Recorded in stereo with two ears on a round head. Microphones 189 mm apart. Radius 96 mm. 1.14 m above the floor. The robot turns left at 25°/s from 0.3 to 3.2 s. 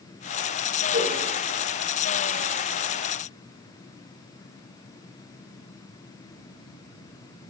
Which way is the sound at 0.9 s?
30° right (ahead or behind).